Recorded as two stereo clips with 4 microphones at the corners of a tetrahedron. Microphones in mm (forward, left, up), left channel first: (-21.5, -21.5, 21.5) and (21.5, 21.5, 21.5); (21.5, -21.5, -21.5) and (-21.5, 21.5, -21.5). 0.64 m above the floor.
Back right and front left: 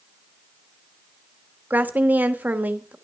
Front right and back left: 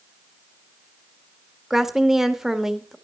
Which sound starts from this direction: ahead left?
A woman speaking, at 1.7 s.